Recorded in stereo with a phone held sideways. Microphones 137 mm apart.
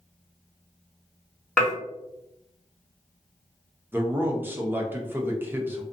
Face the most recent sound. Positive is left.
turn(degrees=-15)  # may be behind; listen again after turning